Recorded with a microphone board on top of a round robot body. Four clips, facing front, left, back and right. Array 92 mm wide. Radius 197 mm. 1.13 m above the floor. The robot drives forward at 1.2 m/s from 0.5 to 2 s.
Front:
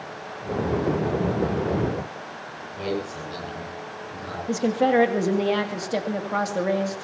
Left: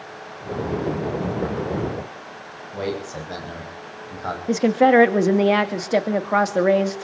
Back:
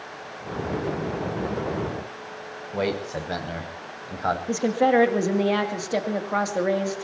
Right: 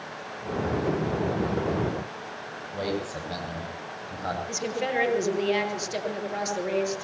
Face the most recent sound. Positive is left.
turn(degrees=95)